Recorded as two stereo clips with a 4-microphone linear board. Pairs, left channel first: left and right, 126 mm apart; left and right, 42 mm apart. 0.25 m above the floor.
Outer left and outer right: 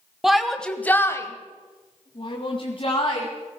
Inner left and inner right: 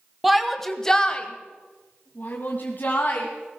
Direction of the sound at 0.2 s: 5° right (ahead or behind).